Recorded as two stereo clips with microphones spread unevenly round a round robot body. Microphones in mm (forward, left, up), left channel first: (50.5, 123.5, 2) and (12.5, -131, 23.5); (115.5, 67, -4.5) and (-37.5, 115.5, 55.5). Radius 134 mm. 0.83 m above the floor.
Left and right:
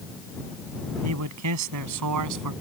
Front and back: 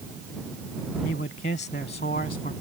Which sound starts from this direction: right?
A man speaking, at 1.0 s.